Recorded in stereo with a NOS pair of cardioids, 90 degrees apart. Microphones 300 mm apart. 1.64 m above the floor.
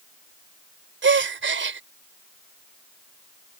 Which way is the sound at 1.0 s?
40° right.